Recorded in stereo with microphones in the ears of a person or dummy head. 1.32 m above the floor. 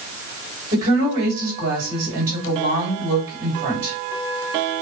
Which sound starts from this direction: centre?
A woman speaking, at 0.7 s.